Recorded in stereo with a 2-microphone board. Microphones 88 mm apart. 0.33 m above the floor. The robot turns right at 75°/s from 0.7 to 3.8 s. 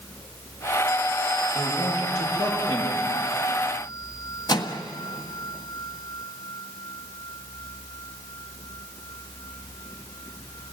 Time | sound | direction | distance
1.5 | a man speaking | 35° right | 9.5 m
4.5 | a microwave | 55° left (ahead or behind) | 1.5 m